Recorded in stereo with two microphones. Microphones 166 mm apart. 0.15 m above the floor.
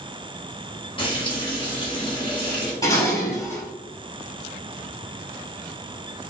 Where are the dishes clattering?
25° left (ahead or behind), 2.0 m.